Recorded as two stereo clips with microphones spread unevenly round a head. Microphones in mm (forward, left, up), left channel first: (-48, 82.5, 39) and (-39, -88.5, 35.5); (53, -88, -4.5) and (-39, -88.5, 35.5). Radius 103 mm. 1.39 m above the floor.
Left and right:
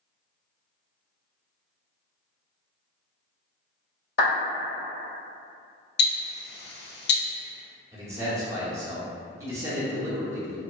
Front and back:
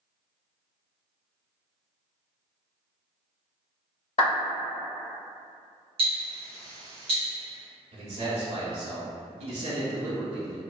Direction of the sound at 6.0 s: 115° left.